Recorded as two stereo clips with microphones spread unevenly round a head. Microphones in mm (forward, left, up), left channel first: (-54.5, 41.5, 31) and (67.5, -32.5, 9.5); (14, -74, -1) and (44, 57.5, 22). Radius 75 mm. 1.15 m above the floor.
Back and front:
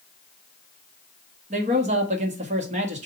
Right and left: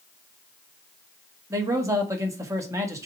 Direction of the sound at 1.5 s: 10° left.